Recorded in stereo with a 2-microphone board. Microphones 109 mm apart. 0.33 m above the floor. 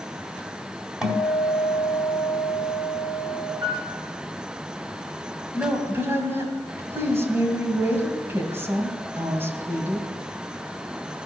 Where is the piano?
35° right (ahead or behind), 4 m.